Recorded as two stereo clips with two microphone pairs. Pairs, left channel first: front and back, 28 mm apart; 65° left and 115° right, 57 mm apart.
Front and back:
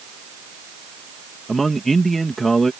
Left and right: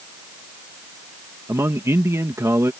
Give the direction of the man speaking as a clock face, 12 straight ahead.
3 o'clock.